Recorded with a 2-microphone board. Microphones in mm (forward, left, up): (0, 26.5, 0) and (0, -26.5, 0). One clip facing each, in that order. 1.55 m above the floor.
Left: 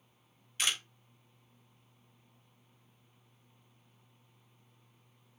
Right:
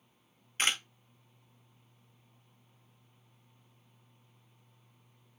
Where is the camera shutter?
40° right (ahead or behind), 0.7 m.